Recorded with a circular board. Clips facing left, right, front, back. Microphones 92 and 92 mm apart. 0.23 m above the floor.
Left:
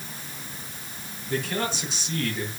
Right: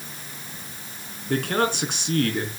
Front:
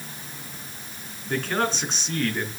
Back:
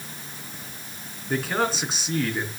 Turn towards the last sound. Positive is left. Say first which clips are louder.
# right 5 dB, even
turn(degrees=-95)